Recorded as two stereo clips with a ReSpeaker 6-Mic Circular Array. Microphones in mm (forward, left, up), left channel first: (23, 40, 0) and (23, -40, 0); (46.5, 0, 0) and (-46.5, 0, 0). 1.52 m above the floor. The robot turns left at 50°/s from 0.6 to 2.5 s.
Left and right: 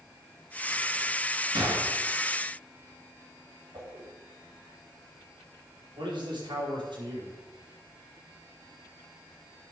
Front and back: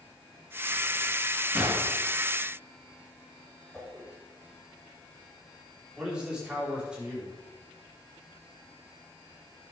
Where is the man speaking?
100° right, 5 m.